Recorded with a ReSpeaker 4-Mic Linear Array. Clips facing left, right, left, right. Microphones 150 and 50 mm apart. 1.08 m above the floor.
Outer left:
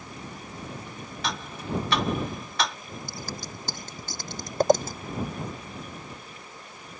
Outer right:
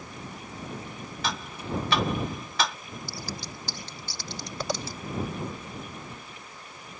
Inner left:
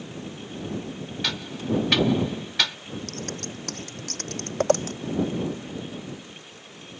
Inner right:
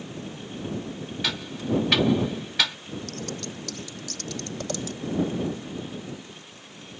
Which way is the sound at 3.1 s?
45° left (ahead or behind).